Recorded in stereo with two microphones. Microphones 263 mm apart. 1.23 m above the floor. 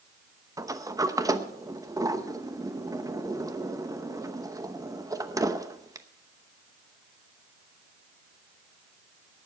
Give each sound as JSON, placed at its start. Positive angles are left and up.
{"t": 0.6, "sound": "a sliding door", "side_deg": -15, "distance_m": 0.8}